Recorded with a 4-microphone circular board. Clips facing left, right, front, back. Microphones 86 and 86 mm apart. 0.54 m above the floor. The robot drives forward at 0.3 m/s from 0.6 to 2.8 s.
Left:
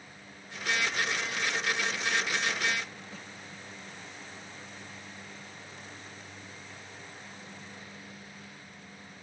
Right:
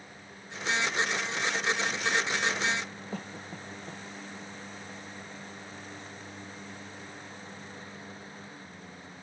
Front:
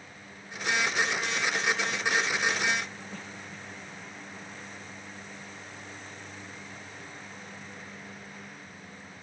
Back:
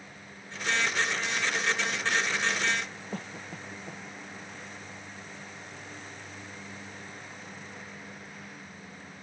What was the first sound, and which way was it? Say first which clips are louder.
A cough: right 6 dB, back 3 dB; 135° right.